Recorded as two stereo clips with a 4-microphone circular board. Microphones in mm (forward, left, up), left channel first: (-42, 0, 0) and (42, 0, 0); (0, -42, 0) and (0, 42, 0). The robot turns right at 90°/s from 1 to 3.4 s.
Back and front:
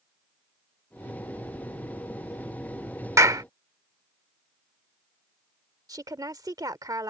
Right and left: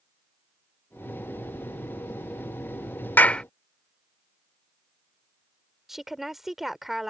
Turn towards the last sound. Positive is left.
turn(degrees=5)